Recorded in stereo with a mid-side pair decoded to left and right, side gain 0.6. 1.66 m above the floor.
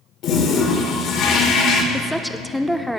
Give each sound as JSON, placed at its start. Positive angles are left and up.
{"t": 0.2, "sound": "a toilet flushing", "azimuth_deg": 50, "distance_m": 1.6}
{"t": 1.9, "sound": "a woman speaking", "azimuth_deg": 0, "distance_m": 0.8}